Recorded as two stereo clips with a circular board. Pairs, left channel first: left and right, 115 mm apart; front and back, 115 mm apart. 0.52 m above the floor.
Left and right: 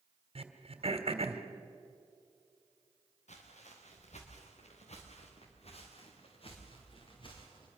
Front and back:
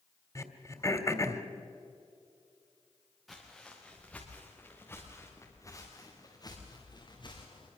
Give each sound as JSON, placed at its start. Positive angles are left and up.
{"t": 0.3, "sound": "throat clearing", "azimuth_deg": -60, "distance_m": 1.6}
{"t": 3.3, "sound": "footsteps", "azimuth_deg": 90, "distance_m": 4.5}